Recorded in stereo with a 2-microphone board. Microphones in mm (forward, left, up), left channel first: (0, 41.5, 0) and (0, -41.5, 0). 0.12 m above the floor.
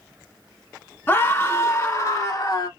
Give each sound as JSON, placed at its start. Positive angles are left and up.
{"t": 1.1, "sound": "a scream", "side_deg": 25, "distance_m": 1.3}